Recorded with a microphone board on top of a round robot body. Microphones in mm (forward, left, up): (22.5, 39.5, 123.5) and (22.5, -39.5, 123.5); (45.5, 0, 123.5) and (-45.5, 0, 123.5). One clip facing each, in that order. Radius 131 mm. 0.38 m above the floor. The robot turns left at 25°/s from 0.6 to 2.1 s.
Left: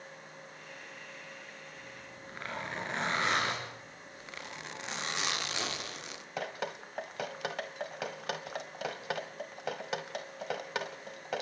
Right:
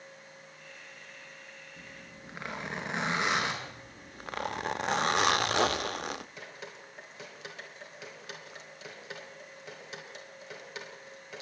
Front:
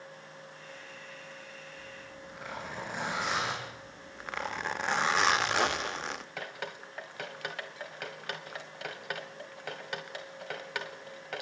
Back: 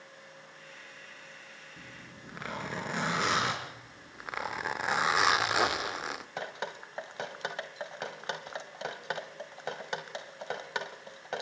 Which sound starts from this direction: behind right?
A zipper, at 1.8 s.